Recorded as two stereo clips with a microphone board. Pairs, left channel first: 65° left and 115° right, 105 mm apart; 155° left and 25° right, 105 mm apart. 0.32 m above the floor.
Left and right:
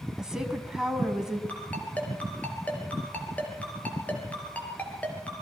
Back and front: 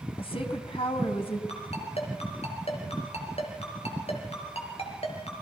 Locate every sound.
0.2 s a woman speaking: 165° left, 2.5 m
1.5 s a ringtone: 145° left, 4 m